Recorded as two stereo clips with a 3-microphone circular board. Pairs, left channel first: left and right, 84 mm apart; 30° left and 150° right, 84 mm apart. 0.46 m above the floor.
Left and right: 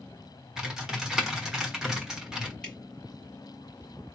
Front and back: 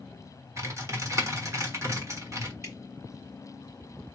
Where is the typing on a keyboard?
170° right, 1.3 m.